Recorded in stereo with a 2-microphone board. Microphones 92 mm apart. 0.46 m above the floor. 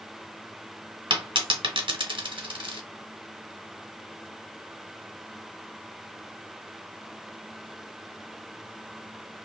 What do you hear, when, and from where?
1.1 s a dropped coin: 65° right (ahead or behind), 0.8 m